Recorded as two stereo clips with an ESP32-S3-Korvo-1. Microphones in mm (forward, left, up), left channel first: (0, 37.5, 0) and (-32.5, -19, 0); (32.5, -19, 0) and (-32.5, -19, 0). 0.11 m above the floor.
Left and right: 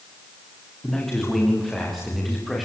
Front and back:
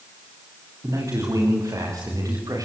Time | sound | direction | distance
0.8 | a man speaking | 145° left | 9.5 m